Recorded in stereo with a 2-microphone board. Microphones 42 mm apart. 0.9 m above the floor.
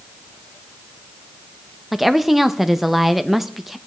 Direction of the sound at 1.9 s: Centre (ahead or behind).